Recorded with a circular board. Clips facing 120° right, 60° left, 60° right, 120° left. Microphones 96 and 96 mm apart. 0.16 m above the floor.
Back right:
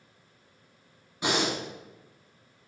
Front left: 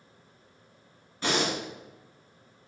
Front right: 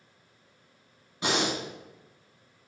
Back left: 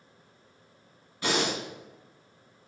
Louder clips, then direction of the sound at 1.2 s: Even, even; 75° right.